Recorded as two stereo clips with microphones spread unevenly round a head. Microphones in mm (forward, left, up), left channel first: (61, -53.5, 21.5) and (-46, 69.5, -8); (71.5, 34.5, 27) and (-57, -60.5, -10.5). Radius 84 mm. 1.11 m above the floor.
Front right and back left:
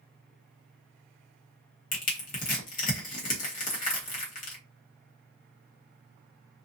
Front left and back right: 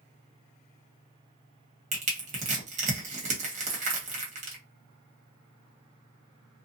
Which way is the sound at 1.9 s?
95° right.